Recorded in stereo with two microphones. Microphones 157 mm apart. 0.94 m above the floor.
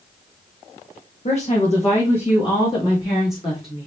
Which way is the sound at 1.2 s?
45° left (ahead or behind).